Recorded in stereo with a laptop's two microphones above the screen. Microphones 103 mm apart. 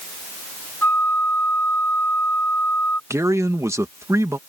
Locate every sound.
0.8 s a flute: 20° left (ahead or behind)
3.1 s a man speaking: 30° right (ahead or behind)